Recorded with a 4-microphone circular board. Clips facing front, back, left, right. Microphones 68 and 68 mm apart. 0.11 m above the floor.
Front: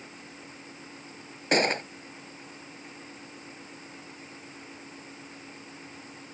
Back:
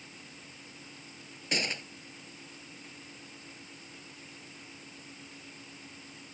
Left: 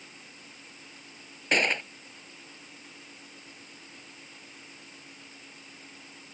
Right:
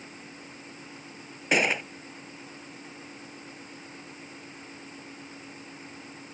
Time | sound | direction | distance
1.5 | a gunshot | 5° right | ?